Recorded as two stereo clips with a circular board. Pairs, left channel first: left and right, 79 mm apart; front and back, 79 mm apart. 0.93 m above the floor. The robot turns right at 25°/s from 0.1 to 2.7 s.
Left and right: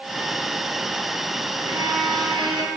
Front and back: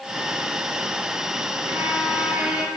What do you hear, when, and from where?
1.6 s a violin: 130° right, 5 m; by 2.7 s 105° right, 5 m